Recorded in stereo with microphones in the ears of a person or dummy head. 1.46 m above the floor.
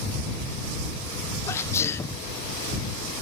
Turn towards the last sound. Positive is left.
turn(degrees=15)  # may be behind; listen again after turning